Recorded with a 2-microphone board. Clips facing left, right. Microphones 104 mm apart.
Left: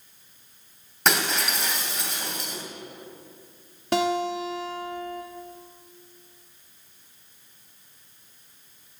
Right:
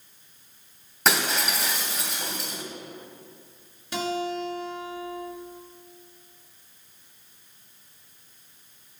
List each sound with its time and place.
1.1 s breaking glass: centre (ahead or behind), 2.5 m
3.9 s a guitar: 60° left (ahead or behind), 2 m